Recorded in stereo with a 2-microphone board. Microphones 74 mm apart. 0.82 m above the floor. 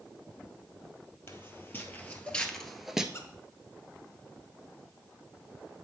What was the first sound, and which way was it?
Footsteps, 35° left (ahead or behind).